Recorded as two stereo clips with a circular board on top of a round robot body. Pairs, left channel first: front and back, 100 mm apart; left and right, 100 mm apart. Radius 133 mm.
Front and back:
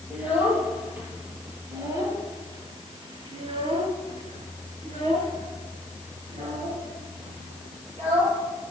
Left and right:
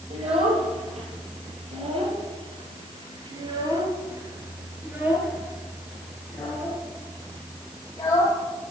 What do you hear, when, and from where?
0.1 s a child speaking: 105° right, 7 m; by 8.4 s 155° left, 7 m